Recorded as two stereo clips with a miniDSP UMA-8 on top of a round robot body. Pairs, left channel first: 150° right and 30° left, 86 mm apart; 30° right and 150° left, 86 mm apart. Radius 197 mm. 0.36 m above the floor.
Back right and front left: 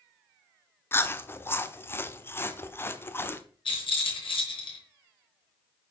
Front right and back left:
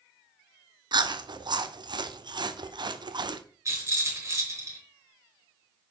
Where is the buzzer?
No buzzer in this recording.